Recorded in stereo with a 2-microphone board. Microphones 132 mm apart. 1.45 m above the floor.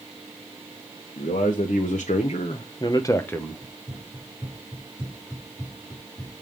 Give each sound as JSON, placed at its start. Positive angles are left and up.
{"t": 1.2, "sound": "a man speaking", "side_deg": 85, "distance_m": 1.2}
{"t": 3.6, "sound": "running footsteps", "side_deg": 20, "distance_m": 5.5}